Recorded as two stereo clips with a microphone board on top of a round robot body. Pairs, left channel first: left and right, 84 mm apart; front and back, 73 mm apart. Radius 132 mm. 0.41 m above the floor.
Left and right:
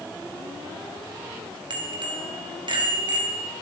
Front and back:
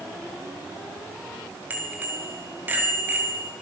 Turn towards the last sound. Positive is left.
turn(degrees=-115)